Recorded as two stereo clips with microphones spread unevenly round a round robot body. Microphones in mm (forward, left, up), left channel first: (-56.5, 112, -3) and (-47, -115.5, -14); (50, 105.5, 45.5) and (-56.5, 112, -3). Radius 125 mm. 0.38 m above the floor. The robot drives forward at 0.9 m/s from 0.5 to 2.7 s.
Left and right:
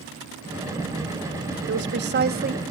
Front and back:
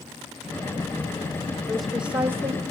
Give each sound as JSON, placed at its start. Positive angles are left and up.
{"t": 1.7, "sound": "a woman speaking", "azimuth_deg": -105, "distance_m": 1.4}